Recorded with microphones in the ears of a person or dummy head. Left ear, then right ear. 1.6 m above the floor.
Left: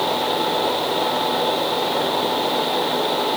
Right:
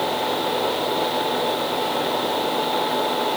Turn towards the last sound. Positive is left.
No sound to turn to.